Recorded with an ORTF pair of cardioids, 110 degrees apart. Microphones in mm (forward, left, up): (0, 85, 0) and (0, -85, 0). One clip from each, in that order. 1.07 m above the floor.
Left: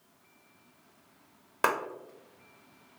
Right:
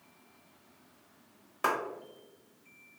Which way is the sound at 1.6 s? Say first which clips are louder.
Left 2 dB; 50° left.